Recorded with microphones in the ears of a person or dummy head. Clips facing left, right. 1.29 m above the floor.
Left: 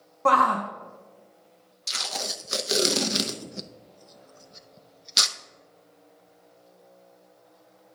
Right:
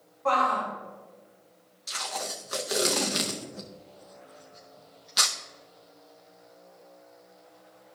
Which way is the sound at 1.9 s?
35° left (ahead or behind).